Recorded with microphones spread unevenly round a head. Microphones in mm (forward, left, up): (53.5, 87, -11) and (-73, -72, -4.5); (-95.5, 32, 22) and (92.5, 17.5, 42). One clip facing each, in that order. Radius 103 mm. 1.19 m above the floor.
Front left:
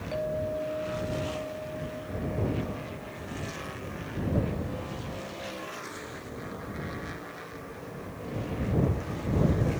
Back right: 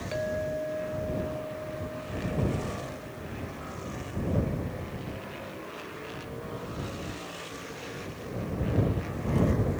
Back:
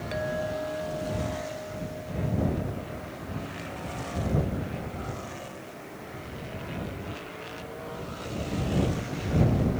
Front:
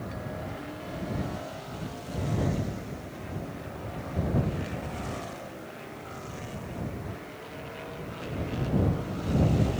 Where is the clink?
165° left.